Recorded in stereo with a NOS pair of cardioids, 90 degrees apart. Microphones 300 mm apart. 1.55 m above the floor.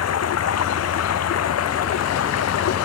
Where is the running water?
55° left.